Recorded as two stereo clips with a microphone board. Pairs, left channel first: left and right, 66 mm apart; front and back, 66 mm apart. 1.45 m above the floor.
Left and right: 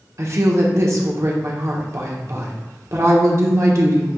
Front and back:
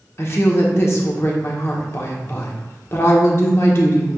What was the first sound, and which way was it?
A woman speaking, 50° right.